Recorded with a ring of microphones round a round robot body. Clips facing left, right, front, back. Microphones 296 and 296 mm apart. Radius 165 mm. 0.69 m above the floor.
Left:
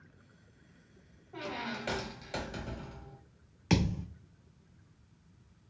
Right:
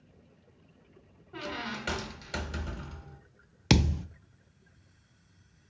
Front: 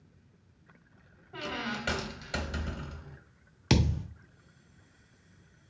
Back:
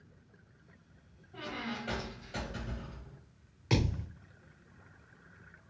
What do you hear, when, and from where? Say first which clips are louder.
1.3 s a squeak: right 1 dB, front 3 dB; 25° right, 0.8 m
3.7 s a thud: right 3 dB, front 4 dB; 50° right, 0.5 m